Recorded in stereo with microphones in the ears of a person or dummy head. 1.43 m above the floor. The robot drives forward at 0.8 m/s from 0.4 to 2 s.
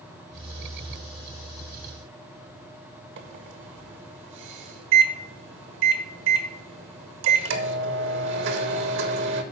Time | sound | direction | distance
3.2 | a microwave | 70° right (ahead or behind) | 1.0 m